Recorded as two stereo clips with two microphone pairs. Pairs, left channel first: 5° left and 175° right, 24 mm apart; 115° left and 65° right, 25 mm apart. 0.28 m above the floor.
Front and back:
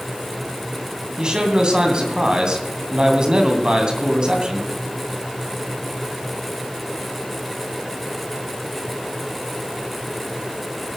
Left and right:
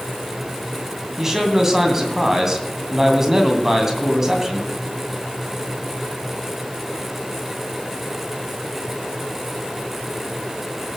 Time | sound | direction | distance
1.2 | a man speaking | 130° right | 2.5 m